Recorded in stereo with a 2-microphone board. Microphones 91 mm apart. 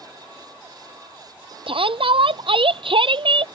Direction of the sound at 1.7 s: 75° right (ahead or behind).